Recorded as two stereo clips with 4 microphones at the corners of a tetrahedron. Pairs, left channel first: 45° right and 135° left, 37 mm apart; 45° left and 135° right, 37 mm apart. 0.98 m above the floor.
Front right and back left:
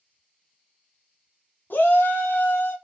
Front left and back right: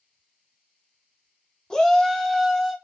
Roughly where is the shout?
Ahead right.